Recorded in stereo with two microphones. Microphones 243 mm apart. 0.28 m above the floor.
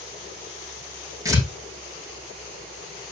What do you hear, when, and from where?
1.2 s tearing paper: 15° right (ahead or behind), 4.5 m